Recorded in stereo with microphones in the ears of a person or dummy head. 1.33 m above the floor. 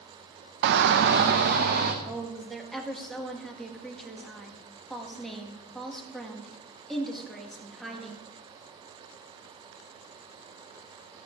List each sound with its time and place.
0.6 s a shout: 60° right (ahead or behind), 0.6 m; by 1.9 s 50° right (ahead or behind), 1.4 m
2.0 s a woman speaking: centre (ahead or behind), 2.0 m